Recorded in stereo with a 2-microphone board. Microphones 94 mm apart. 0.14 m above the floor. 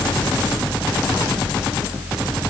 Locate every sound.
Only background noise.